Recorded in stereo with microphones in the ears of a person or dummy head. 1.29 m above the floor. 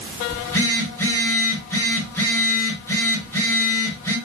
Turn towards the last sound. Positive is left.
turn(degrees=10)  # may be behind; listen again after turning